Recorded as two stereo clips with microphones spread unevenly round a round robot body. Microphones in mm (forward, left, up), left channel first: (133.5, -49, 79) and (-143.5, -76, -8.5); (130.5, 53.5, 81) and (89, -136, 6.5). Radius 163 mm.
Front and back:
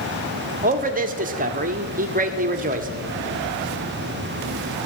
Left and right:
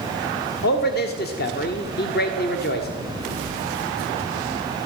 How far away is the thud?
I don't hear a thud.